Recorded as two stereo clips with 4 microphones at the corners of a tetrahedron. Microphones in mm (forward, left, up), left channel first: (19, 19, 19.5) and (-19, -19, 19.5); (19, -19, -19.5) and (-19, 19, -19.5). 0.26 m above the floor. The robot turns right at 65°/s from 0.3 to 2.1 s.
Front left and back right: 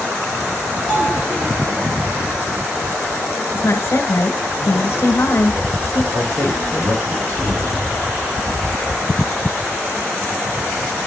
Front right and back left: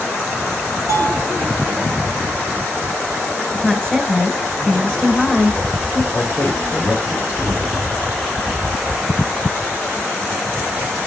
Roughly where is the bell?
Behind left.